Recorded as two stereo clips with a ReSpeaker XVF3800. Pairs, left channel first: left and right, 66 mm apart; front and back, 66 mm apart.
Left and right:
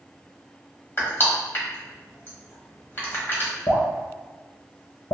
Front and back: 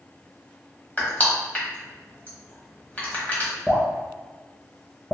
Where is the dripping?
70° left, 1.0 m.